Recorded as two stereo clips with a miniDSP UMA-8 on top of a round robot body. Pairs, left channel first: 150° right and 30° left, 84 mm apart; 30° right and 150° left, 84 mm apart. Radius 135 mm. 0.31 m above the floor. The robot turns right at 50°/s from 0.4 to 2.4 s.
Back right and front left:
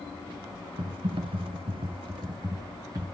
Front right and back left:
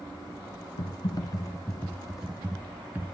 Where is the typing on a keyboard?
5° right, 1.2 m; by 3.1 s 75° left, 1.2 m.